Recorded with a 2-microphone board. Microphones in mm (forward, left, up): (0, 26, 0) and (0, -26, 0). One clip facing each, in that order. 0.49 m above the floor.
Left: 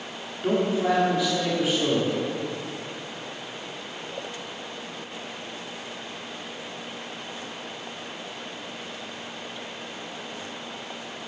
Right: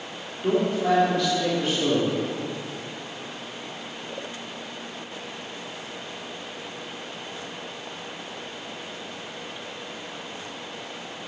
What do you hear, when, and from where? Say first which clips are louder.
0.4 s a man speaking: right 1 dB; 10° left (ahead or behind), 1.4 m